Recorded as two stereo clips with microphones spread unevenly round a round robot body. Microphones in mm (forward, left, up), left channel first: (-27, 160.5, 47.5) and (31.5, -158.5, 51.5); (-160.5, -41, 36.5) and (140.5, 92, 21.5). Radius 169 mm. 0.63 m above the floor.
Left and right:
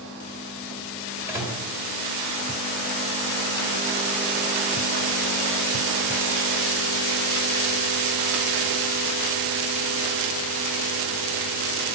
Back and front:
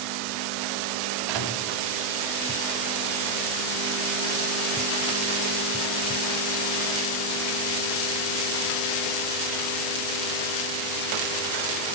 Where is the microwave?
5° left, 2.0 m.